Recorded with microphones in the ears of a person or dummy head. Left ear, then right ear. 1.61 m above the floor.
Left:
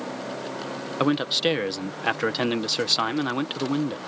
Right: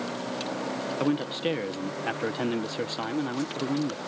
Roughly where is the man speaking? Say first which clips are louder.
Left 7 dB; left.